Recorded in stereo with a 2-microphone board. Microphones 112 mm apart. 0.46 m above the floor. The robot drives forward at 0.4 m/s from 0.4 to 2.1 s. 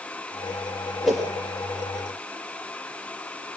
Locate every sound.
1.0 s a whoosh: centre (ahead or behind), 6 m